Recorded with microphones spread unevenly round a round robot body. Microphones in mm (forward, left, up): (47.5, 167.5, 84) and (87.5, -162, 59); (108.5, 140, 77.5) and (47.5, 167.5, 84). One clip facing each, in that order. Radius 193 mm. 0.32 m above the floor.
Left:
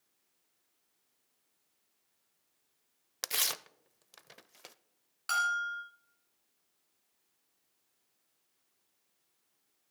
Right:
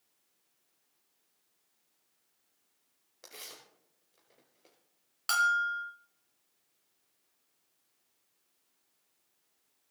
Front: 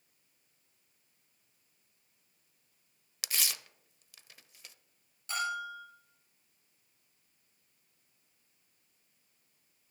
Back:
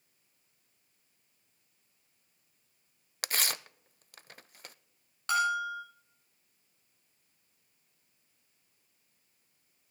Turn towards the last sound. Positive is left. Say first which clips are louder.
# right 3 dB, back 7 dB
turn(degrees=-165)